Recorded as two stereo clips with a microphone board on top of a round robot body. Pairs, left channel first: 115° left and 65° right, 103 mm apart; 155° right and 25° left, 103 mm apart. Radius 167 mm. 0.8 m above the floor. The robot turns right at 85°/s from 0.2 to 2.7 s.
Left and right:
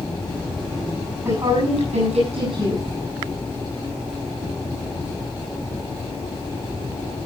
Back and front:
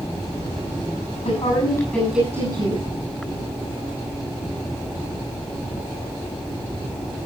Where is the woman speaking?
135° right, 9.5 m; by 2.8 s 10° right, 9.5 m.